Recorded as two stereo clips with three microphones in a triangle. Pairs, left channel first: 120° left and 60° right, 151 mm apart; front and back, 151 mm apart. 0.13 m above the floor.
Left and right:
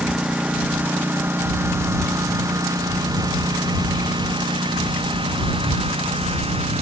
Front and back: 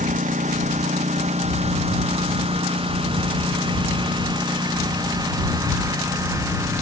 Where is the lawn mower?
145° right; by 6.8 s 110° right.